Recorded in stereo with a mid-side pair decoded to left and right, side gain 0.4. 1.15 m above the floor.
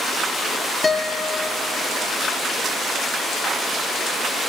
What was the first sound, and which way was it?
A guitar, 25° left.